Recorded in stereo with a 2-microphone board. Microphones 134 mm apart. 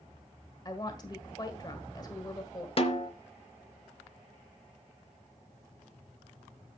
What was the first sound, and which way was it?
A woman speaking, 30° left (ahead or behind).